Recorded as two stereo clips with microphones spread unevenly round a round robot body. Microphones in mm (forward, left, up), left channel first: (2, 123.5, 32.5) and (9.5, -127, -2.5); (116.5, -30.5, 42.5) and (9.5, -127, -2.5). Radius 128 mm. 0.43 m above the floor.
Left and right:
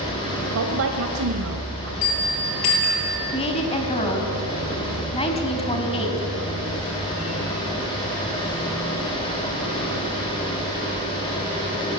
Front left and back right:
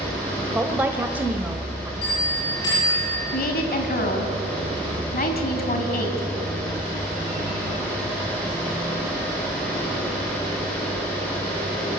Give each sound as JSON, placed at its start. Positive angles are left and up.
{"t": 0.6, "sound": "a woman speaking", "azimuth_deg": -70, "distance_m": 1.9}
{"t": 2.0, "sound": "a bell", "azimuth_deg": 115, "distance_m": 9.0}
{"t": 3.3, "sound": "a woman speaking", "azimuth_deg": 20, "distance_m": 4.5}